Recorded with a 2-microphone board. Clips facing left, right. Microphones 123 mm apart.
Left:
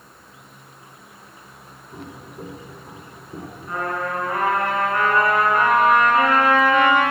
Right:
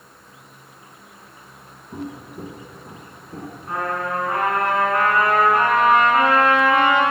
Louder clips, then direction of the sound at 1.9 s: Right 5 dB; 45° right (ahead or behind).